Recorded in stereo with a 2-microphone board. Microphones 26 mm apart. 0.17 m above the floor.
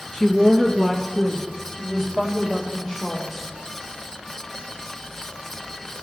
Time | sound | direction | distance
0.1 | a woman speaking | 15° right (ahead or behind) | 2.5 m